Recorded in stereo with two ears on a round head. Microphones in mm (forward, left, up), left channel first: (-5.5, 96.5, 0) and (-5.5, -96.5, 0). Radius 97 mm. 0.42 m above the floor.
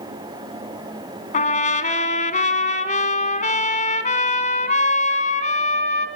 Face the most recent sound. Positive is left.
turn(degrees=35)  # may be behind; listen again after turning